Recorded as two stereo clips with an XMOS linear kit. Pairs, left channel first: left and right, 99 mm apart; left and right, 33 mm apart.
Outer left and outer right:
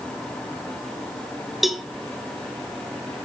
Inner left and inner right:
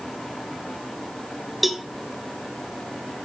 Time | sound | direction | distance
1.6 | a cowbell | centre (ahead or behind) | 0.7 m